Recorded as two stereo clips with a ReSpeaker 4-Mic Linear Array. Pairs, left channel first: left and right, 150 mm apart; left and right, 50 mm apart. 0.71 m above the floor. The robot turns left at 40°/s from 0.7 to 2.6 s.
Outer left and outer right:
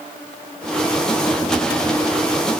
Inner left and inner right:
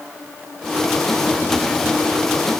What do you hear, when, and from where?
Only background noise.